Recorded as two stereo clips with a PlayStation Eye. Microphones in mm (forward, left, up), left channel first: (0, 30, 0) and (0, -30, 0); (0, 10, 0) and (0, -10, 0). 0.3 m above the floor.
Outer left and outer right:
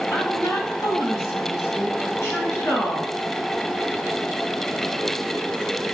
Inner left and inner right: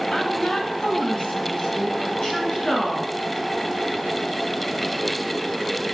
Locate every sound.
0.1 s a woman speaking: 55° left (ahead or behind), 2 m; by 3.1 s 45° left (ahead or behind), 4 m